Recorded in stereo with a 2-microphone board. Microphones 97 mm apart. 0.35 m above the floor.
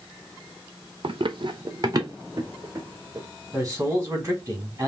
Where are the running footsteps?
60° right (ahead or behind), 0.5 m; by 3.2 s 25° right (ahead or behind), 1.7 m.